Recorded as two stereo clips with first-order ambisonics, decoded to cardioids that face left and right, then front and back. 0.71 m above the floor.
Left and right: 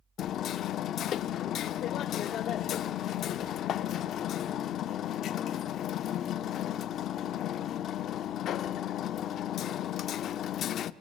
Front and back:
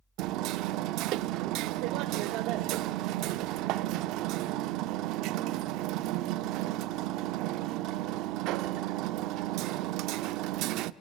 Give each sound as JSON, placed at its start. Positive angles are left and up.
{"t": 0.2, "sound": "hammering", "azimuth_deg": 145, "distance_m": 0.6}